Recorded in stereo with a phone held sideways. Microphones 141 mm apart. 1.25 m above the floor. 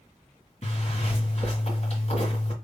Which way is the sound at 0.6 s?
55° left (ahead or behind).